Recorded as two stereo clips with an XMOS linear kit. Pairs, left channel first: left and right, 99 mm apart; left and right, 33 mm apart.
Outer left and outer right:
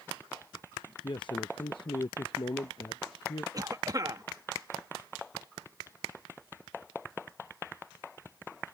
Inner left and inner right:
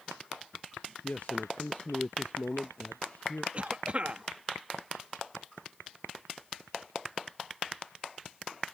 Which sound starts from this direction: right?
A cough, at 3.5 s.